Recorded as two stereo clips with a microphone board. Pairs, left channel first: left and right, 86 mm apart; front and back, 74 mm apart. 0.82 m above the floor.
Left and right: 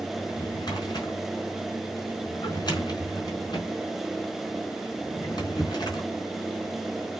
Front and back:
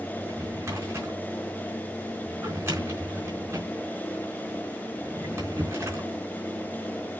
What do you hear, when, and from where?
0.2 s a drawer: 130° left, 4 m